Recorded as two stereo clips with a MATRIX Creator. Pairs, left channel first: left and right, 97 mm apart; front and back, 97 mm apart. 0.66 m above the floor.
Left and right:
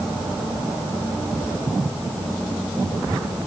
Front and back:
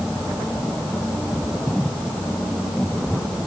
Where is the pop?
I don't hear a pop.